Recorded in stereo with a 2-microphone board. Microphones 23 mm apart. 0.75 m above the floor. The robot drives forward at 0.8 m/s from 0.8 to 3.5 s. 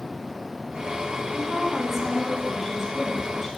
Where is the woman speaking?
15° right (ahead or behind), 1.1 m; by 3.5 s 5° right (ahead or behind), 2.5 m.